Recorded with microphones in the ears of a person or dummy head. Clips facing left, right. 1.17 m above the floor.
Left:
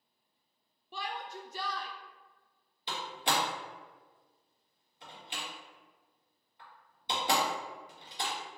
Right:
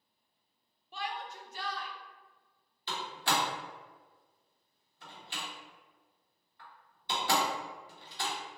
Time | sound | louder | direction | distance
0.9 | a shout | even | 80° left | 0.5 m
2.9 | a door slam | even | 20° left (ahead or behind) | 1.3 m